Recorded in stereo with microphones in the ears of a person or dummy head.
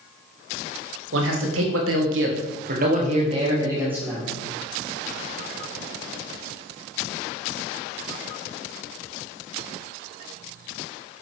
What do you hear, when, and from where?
1.1 s a man speaking: 75° right (ahead or behind), 2 m; by 4.3 s 5° right (ahead or behind), 1.8 m